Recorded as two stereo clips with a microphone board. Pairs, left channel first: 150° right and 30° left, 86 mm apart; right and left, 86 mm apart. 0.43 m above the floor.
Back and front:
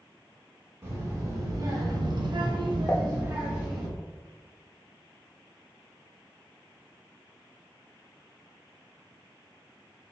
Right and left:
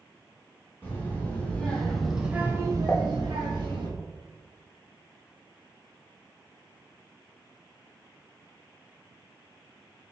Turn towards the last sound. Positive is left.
turn(degrees=-135)